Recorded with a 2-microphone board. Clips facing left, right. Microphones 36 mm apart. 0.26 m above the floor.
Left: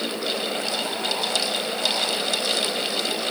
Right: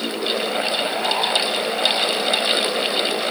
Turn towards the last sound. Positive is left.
No sound to turn to.